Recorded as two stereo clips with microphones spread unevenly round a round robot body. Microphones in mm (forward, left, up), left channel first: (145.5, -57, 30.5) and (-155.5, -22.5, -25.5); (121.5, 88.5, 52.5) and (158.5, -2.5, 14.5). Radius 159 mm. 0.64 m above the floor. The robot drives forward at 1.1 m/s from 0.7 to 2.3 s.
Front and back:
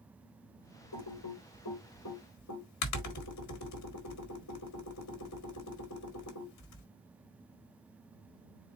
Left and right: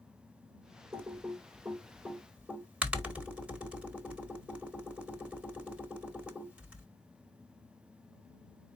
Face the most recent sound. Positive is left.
turn(degrees=-20)